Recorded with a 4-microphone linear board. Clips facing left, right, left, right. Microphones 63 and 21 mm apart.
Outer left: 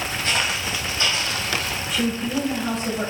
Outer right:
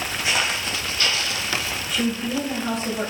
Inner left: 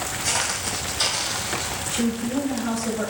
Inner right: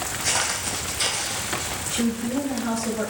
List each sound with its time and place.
0.2 s footsteps: 10° right (ahead or behind), 0.8 m; by 1.8 s 55° left (ahead or behind), 0.9 m
1.9 s a woman speaking: centre (ahead or behind), 1.1 m